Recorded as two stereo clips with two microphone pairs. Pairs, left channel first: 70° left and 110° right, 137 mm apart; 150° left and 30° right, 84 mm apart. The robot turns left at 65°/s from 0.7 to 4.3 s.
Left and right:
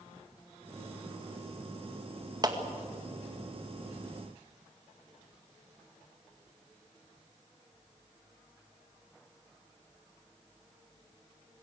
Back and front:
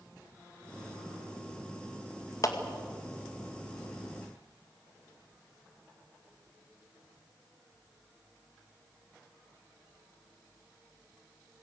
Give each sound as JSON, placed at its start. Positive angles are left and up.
{"t": 2.4, "sound": "a clap", "azimuth_deg": -165, "distance_m": 2.0}